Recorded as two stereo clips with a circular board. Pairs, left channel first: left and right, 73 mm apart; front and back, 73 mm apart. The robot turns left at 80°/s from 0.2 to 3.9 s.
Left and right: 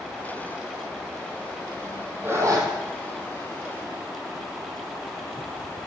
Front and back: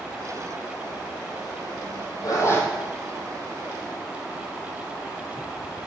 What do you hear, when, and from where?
2.2 s a zipper: 30° right, 3.5 m; by 2.7 s 65° right, 3.5 m